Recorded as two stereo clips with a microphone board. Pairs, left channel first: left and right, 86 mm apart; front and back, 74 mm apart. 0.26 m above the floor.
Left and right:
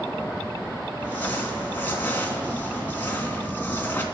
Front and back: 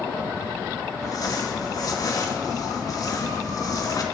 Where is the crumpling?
25° left, 3 m.